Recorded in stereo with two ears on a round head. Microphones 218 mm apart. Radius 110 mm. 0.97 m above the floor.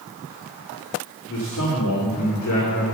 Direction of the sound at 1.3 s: 55° left (ahead or behind).